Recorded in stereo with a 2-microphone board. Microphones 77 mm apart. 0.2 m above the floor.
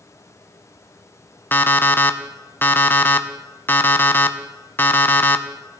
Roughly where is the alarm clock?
Left.